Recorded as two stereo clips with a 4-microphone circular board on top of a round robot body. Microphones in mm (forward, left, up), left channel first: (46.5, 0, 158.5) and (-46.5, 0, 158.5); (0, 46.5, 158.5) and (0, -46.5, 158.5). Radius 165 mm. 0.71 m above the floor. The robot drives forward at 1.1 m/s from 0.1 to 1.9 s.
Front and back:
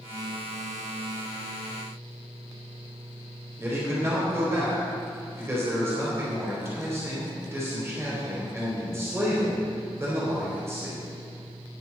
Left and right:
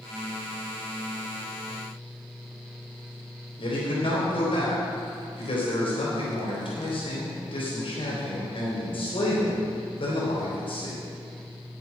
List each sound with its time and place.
3.6 s a man speaking: 115° left, 3.5 m